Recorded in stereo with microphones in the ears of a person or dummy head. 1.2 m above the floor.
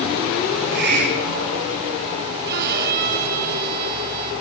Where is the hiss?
55° right (ahead or behind), 5.5 m.